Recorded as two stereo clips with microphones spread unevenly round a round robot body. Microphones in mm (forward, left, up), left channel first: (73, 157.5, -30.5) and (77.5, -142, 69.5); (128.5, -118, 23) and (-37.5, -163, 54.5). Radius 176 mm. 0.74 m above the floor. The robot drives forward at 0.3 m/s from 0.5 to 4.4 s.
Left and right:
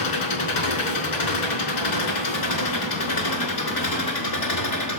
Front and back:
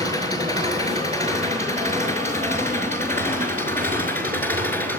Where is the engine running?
120° left, 5 m; by 5.0 s 130° left, 5.5 m.